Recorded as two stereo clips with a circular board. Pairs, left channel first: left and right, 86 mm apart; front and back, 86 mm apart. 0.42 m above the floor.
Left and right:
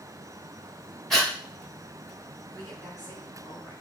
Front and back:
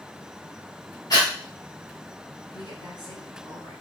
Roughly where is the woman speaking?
Ahead.